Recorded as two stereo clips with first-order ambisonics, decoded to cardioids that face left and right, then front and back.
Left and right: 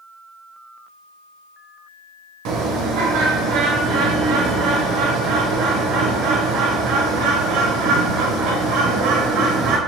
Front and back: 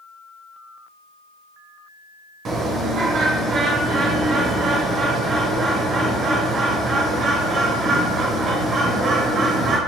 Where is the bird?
120° right, 0.6 m.